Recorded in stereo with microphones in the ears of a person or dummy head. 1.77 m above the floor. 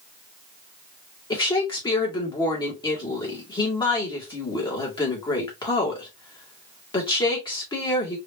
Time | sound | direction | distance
1.3 | a woman speaking | 20° left (ahead or behind) | 2 m